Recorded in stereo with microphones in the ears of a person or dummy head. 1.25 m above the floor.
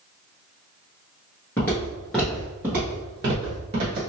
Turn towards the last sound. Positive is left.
turn(degrees=-35)  # may be behind; listen again after turning